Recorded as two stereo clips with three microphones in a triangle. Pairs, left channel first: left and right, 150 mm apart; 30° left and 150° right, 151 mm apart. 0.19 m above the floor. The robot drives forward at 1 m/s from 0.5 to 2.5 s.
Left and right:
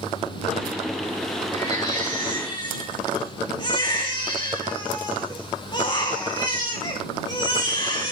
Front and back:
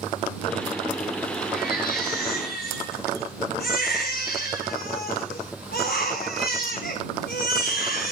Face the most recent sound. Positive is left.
turn(degrees=30)